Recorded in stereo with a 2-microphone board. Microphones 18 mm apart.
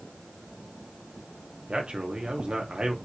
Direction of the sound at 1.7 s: 70° right (ahead or behind).